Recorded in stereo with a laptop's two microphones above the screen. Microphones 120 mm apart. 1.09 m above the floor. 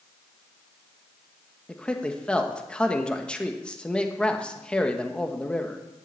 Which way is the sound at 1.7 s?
10° left (ahead or behind).